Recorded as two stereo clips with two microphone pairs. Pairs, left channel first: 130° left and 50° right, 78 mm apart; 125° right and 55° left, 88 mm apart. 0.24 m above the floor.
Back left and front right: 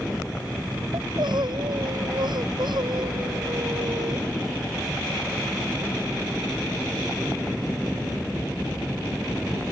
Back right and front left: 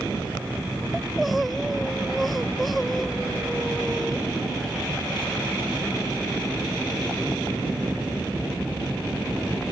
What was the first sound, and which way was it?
Crying, 35° right.